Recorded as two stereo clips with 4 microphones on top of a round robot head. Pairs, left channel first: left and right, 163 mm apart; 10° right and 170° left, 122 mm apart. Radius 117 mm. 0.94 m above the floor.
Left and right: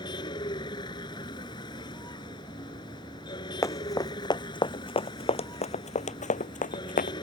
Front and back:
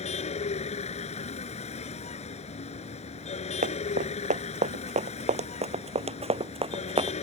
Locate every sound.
0.0 s a vehicle: 20° left
3.6 s running footsteps: 160° left; by 7.2 s 125° left